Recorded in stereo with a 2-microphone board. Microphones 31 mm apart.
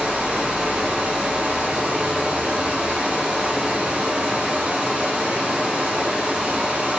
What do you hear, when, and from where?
0.0 s running water: 50° right (ahead or behind), 2.5 m